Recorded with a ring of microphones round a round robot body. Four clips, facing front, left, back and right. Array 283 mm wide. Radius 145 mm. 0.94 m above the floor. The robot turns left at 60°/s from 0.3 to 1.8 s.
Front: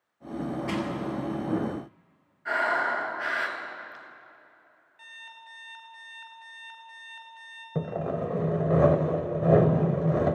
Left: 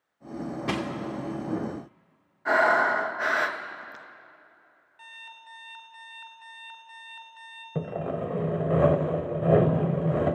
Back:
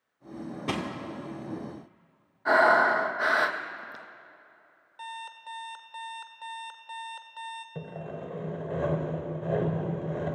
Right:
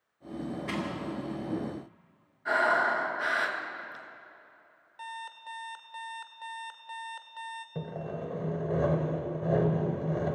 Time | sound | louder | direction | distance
0.7 | crushing | left 6 dB, back 1 dB | 125° left | 2.5 m
2.5 | breathing | left 4 dB, back 6 dB | 145° left | 1.4 m
5.0 | an alarm clock | right 7 dB, back 9 dB | 150° right | 1.7 m
7.8 | sawing | left 8 dB, front 13 dB | 40° left | 0.9 m